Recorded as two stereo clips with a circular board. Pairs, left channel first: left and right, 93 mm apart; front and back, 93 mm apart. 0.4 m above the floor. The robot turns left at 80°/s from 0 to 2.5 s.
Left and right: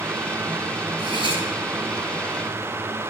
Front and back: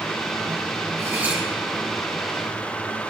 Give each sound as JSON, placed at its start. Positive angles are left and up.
{"t": 1.0, "sound": "cutlery clinking", "azimuth_deg": 130, "distance_m": 7.5}